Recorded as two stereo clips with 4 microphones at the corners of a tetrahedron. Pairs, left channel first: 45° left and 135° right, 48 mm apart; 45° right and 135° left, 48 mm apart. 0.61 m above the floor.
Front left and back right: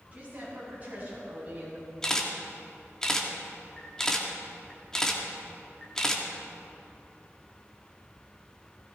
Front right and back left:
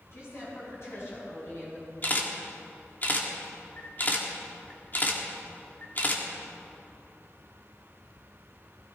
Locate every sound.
0.1 s a woman speaking: 75° right, 5.5 m; by 1.9 s 85° right, 4 m
2.0 s a camera shutter: 25° right, 1.6 m